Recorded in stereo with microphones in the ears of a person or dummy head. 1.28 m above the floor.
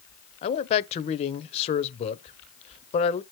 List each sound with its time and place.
0.4 s a man speaking: 30° left (ahead or behind), 0.6 m